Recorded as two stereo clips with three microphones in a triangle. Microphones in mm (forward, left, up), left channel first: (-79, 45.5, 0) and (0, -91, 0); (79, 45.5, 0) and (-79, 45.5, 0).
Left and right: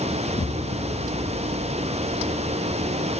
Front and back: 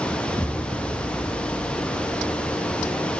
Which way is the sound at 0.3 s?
95° left.